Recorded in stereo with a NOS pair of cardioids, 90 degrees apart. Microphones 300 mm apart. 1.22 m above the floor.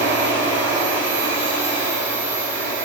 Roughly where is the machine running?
Ahead right.